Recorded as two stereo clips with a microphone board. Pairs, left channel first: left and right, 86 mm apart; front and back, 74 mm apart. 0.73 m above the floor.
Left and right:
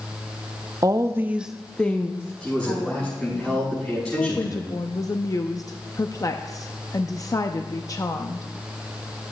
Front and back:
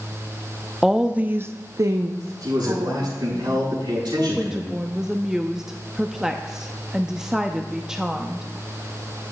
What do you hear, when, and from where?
0.8 s a woman speaking: 95° right, 0.6 m; by 3.4 s 135° left, 1.5 m
2.4 s a man speaking: 170° left, 6 m
4.2 s a woman speaking: 100° left, 0.5 m